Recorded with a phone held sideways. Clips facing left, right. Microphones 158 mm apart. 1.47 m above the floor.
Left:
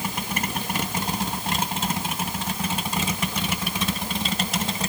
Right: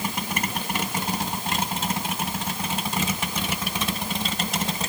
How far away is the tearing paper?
No tearing paper in this recording.